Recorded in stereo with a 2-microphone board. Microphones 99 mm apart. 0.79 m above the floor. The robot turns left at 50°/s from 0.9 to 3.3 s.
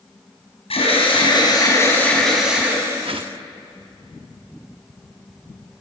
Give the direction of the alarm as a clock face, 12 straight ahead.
10 o'clock.